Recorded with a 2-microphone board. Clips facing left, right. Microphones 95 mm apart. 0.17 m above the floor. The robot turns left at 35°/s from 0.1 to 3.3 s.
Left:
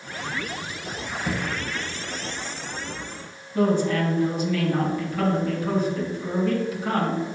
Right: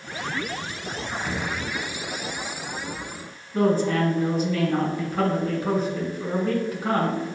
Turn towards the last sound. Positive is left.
turn(degrees=-40)  # may be behind; listen again after turning